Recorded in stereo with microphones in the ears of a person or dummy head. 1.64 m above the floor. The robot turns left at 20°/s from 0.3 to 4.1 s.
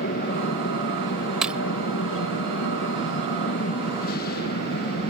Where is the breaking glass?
5° right (ahead or behind); by 1.6 s 10° right (ahead or behind).